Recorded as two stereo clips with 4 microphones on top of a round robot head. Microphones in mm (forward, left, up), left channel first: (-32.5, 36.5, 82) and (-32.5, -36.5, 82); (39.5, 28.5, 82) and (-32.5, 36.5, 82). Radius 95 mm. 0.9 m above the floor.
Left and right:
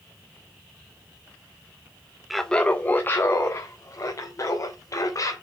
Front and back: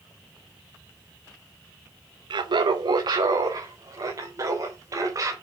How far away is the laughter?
About 0.7 m.